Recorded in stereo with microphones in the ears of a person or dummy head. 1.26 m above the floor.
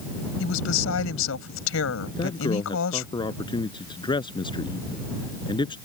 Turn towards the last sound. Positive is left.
turn(degrees=25)  # may be behind; listen again after turning